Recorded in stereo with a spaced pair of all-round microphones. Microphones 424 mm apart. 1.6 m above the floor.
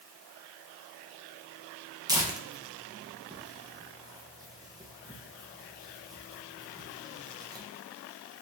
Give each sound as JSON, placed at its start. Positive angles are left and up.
{"t": 2.1, "sound": "tearing paper", "side_deg": -10, "distance_m": 0.7}